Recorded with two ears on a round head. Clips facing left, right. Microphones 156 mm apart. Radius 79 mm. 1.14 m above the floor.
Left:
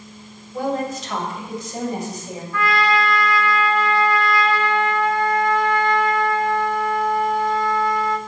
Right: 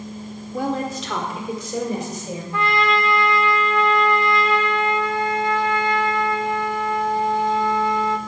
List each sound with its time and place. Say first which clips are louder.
0.5 s a woman speaking: left 1 dB; 70° right (ahead or behind), 4 m; by 2.4 s 65° right (ahead or behind), 6 m
2.5 s a trumpet: left 1 dB; 20° right (ahead or behind), 1.2 m